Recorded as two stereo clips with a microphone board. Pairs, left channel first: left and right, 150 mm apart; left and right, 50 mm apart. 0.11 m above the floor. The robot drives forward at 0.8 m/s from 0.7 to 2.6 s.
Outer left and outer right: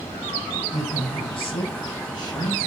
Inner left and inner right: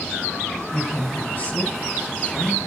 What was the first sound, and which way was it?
A woman speaking, 35° left (ahead or behind).